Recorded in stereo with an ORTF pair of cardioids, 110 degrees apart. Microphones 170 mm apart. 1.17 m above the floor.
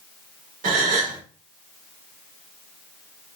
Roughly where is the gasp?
Ahead right.